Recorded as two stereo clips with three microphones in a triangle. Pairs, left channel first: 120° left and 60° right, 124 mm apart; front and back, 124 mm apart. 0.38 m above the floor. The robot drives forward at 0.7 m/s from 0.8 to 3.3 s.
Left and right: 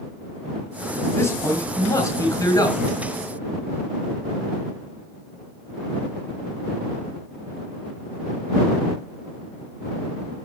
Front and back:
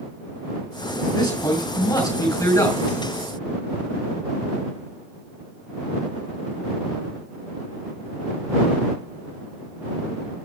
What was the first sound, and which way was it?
A man speaking, 55° left.